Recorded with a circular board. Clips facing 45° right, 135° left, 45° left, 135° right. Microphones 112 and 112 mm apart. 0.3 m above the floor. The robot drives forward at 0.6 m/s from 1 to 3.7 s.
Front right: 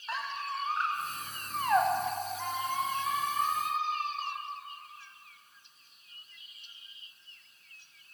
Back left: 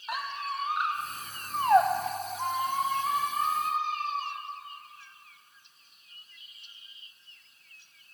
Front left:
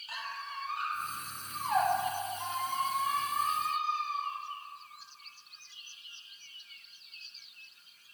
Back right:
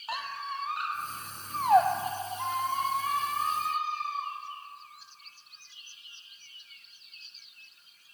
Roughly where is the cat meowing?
No cat meowing in this recording.